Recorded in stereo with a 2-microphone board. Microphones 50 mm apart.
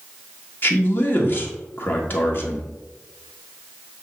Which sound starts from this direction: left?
A man speaking, at 0.6 s.